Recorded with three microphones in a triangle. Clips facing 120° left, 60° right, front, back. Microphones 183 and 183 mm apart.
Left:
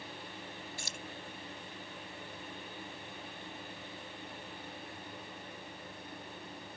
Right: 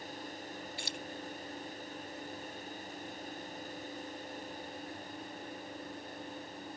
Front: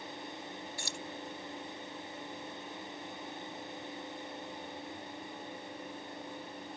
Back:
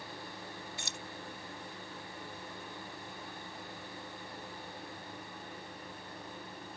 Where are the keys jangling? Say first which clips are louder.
Right 3 dB, front 3 dB; 120° left.